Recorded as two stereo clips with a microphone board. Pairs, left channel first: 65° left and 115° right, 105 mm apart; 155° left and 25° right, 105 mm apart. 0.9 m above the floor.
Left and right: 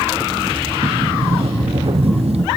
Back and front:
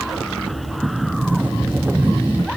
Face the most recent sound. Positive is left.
turn(degrees=-95)